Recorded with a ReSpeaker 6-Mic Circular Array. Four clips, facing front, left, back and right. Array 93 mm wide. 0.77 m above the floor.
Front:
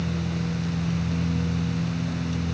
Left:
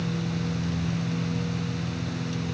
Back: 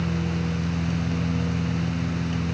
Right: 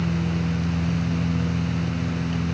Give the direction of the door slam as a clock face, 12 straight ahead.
No door slam in this recording.